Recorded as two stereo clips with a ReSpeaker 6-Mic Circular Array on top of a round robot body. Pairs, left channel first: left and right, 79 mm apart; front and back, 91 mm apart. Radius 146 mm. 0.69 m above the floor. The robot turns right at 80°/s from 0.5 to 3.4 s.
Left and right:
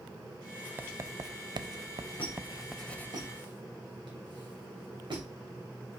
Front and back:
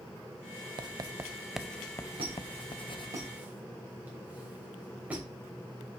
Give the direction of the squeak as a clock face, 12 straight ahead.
7 o'clock.